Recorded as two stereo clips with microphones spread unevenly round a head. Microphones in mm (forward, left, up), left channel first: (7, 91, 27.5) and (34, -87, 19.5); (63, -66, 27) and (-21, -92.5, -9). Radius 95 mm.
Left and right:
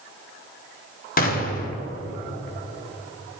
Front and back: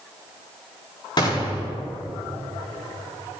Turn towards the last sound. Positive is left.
turn(degrees=85)